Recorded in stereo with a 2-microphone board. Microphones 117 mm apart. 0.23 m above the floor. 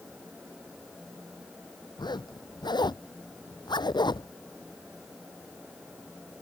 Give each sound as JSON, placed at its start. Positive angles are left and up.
{"t": 2.0, "sound": "a zipper", "side_deg": 40}